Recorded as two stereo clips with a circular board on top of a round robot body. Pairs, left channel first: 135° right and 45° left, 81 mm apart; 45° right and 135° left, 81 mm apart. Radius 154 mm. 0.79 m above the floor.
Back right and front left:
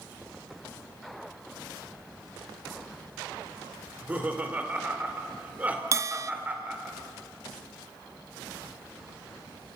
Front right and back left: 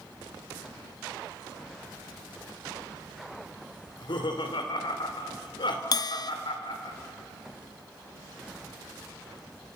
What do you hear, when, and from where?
3.9 s laughter: 25° right, 3 m
5.9 s a bell: 10° right, 0.5 m